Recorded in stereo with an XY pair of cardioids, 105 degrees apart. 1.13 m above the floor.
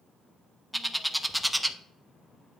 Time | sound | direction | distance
0.7 | a bird | straight ahead | 0.7 m